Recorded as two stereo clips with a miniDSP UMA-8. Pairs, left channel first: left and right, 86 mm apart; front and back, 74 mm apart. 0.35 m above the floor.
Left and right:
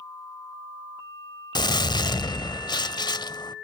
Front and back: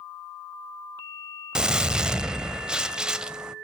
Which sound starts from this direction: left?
A gunshot, at 1.6 s.